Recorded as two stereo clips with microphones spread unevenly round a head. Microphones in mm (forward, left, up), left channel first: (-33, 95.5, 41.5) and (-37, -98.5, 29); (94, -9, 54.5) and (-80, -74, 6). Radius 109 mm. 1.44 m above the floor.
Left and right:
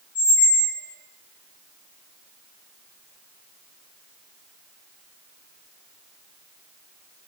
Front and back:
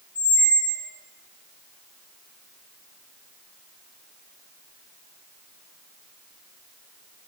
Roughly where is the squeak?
Ahead left.